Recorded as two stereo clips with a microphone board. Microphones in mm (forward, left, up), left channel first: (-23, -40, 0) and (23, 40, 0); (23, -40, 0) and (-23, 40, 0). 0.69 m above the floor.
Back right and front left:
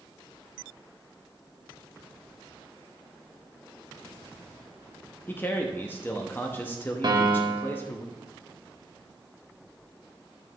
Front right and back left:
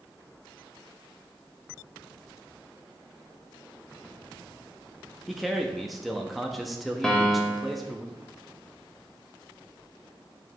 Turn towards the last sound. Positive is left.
turn(degrees=20)